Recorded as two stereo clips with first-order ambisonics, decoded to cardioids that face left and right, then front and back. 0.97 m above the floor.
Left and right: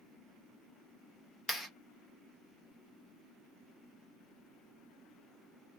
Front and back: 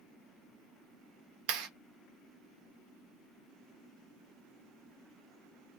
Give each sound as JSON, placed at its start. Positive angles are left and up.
{"t": 1.5, "sound": "a clap", "azimuth_deg": 180, "distance_m": 1.1}